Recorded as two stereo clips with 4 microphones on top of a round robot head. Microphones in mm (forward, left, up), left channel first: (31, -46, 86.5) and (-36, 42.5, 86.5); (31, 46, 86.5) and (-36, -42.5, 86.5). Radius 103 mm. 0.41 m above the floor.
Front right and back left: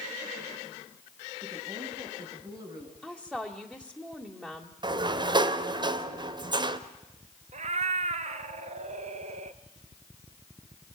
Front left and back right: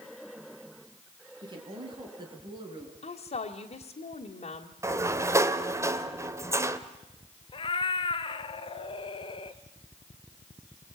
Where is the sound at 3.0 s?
45° left, 1.8 m.